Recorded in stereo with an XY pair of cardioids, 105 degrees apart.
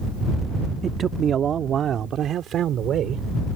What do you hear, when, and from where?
0.8 s a man speaking: 50° right; by 3.5 s 70° right